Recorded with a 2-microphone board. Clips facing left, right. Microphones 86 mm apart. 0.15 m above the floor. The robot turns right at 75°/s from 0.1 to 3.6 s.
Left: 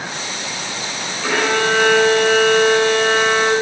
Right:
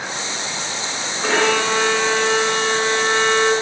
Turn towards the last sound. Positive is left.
turn(degrees=25)